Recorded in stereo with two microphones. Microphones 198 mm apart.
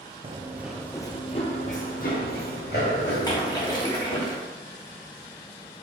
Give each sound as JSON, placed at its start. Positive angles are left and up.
{"t": 0.2, "sound": "running footsteps", "side_deg": -30, "distance_m": 0.6}
{"t": 3.2, "sound": "a splash", "side_deg": 20, "distance_m": 1.0}